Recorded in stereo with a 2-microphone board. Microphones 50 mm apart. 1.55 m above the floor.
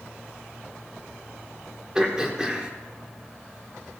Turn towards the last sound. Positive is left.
turn(degrees=-10)  # may be behind; listen again after turning